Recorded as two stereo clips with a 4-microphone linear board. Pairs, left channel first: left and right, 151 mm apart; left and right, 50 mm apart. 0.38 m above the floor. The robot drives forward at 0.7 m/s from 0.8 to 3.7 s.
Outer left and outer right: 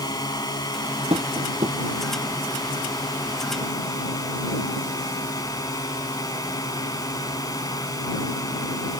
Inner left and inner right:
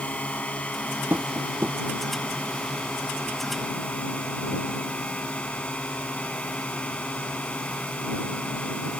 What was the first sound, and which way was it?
A drone, 25° left (ahead or behind).